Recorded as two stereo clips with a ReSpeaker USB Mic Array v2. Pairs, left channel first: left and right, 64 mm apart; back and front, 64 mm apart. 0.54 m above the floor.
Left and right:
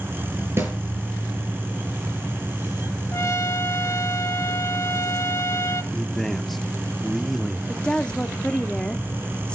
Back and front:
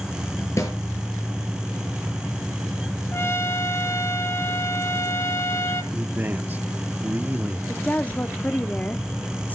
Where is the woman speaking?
150° left, 0.8 m.